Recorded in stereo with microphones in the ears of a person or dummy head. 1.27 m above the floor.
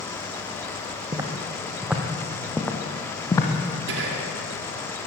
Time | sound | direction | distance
1.1 | footsteps | 25° right (ahead or behind) | 2.5 m
3.9 | whispering | 75° right (ahead or behind) | 2.5 m